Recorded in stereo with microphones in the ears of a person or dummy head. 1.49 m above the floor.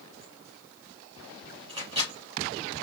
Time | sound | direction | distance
1.7 | a microwave | 40° right (ahead or behind) | 3 m